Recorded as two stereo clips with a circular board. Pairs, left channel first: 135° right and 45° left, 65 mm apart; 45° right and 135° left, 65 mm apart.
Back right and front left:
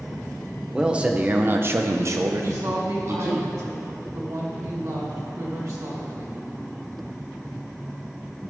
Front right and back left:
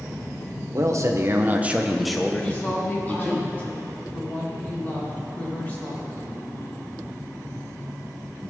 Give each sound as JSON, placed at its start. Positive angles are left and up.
{"t": 0.7, "sound": "a man speaking", "azimuth_deg": 120, "distance_m": 0.9}
{"t": 2.4, "sound": "a woman speaking", "azimuth_deg": 15, "distance_m": 2.0}